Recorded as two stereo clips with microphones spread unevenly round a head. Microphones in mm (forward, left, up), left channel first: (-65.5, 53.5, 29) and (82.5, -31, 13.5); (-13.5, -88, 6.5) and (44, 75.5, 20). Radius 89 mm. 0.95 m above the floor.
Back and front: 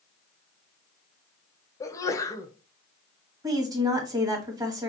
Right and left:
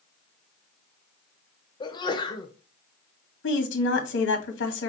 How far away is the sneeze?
About 0.9 m.